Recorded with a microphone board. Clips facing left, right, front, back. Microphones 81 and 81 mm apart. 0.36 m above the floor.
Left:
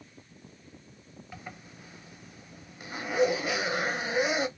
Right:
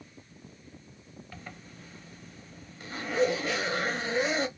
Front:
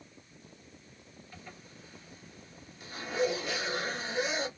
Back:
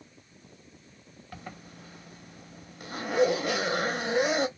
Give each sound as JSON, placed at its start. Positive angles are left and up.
{"t": 1.3, "sound": "a zipper", "azimuth_deg": 165, "distance_m": 0.6}